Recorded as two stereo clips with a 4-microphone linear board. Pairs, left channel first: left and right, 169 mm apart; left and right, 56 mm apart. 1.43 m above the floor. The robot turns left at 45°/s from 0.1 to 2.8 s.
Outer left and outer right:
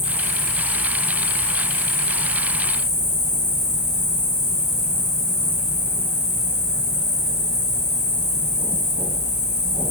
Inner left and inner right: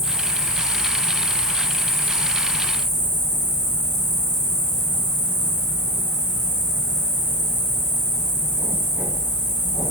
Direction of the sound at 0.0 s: 80° left.